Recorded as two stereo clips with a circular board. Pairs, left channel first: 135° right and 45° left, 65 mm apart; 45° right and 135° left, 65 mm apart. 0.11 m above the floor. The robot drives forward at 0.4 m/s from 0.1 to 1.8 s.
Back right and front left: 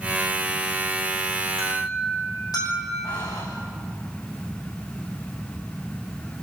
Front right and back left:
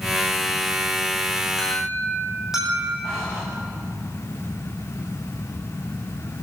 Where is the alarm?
140° right, 7 m.